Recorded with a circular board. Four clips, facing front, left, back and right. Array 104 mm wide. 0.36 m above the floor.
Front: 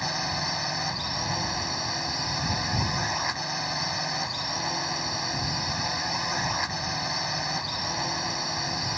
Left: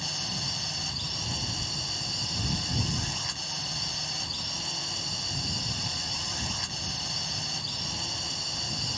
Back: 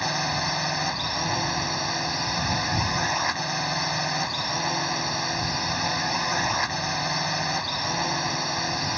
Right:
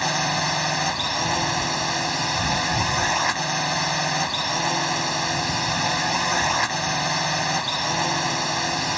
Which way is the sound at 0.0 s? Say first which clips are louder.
Right 15 dB, back 4 dB; 105° right.